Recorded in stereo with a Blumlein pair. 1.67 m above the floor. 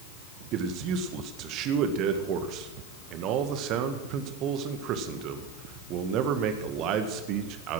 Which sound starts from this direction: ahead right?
A man speaking, at 0.5 s.